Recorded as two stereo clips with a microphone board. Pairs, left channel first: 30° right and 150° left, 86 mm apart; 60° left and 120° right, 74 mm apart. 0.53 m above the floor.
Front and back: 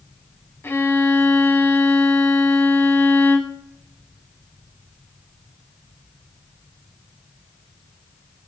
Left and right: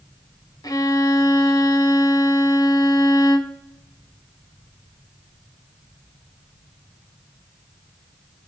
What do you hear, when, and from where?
0.6 s a violin: 35° left, 1.0 m